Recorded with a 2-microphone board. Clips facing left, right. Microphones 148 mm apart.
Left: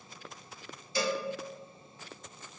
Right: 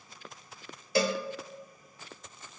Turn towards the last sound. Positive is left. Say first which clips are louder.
# right 4 dB
turn(degrees=-75)  # may be behind; listen again after turning